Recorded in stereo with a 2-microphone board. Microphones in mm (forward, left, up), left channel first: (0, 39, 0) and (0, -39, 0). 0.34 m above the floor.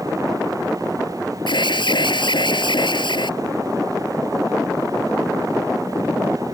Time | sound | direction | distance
1.5 | an alarm | 80° left | ?